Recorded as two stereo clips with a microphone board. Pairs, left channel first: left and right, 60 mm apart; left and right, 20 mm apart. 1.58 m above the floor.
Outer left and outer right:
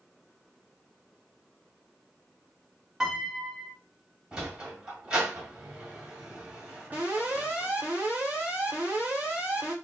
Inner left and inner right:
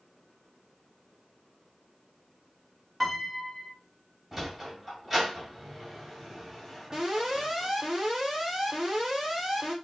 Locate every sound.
3.0 s a piano: 10° right (ahead or behind), 0.9 m
4.3 s a sliding door: 10° right (ahead or behind), 1.6 m
6.9 s an alarm: 25° right (ahead or behind), 1.1 m